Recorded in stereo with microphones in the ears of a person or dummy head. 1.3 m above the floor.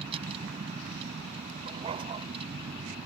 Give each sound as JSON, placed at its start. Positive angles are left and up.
{"t": 0.0, "sound": "a vehicle", "side_deg": -30}
{"t": 1.7, "sound": "a dog barking", "side_deg": -30}